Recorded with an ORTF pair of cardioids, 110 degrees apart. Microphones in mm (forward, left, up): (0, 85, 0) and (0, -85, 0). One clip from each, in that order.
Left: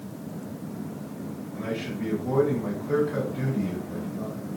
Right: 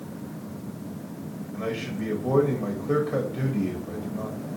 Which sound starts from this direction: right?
A man speaking, at 1.5 s.